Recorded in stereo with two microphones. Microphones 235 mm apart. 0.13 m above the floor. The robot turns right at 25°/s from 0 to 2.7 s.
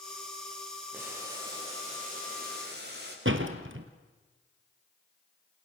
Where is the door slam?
65° right (ahead or behind), 2 m.